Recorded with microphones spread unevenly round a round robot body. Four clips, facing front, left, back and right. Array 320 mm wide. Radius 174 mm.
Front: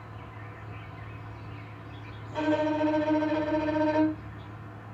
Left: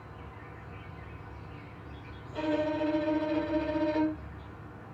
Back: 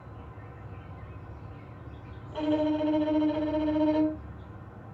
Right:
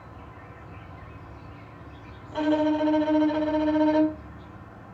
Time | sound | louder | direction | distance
0.0 | an insect | right 2 dB, front 2 dB | 70° right | 2.5 m
2.3 | a violin | right 7 dB, even | 60° right | 1.6 m